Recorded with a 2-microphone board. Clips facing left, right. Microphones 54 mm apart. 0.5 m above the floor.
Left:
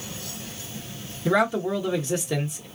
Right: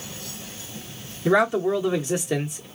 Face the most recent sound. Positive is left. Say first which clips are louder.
# right 3 dB
turn(degrees=-15)  # may be behind; listen again after turning